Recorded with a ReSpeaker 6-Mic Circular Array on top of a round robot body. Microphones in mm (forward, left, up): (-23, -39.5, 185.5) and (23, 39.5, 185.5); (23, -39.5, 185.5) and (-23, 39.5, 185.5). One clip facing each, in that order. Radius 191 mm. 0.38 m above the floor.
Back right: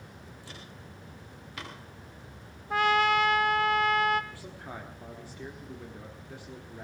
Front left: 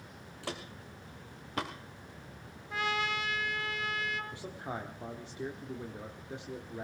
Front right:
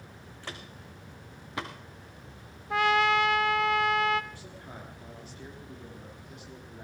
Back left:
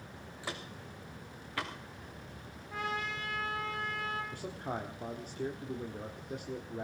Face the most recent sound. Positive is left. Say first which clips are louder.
# front left 2 dB, back left 7 dB
turn(degrees=125)